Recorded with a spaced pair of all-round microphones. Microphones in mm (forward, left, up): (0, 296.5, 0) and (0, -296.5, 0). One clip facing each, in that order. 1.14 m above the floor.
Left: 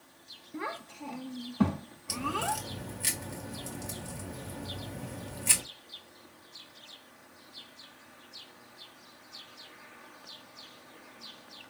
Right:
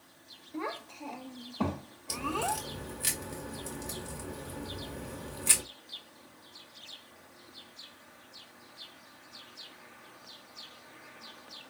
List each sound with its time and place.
0.5 s a child speaking: 40° left (ahead or behind), 0.8 m
2.1 s a crack: 20° left (ahead or behind), 1.6 m